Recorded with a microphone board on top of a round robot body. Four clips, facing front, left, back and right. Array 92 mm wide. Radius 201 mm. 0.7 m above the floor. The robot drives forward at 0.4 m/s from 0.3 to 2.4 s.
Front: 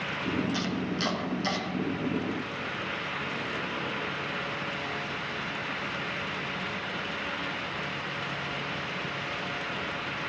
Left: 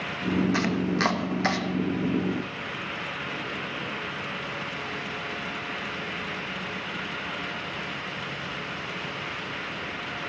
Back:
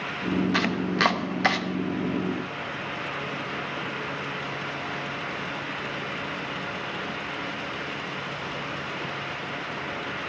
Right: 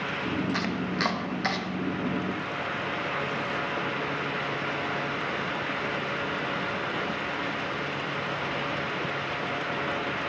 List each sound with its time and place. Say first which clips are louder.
0.5 s chopping: left 3 dB, back 6 dB; 170° left, 1.4 m; by 1.6 s 175° left, 1.8 m